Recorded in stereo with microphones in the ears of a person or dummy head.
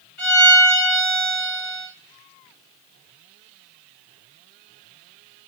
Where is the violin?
50° left (ahead or behind), 2.5 m.